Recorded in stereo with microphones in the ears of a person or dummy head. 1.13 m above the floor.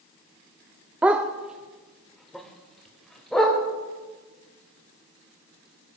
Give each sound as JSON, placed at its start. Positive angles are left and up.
{"t": 1.0, "sound": "a dog barking", "side_deg": -10, "distance_m": 1.0}